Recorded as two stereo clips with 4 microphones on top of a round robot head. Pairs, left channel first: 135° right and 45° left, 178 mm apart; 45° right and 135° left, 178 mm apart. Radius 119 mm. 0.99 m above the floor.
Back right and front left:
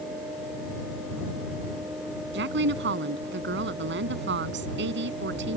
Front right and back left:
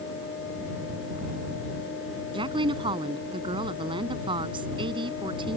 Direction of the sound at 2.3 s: 70° left.